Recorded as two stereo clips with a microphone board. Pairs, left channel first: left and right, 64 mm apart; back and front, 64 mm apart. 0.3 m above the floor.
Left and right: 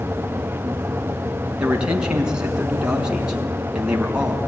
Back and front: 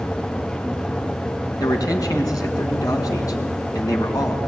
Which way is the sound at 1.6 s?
165° right.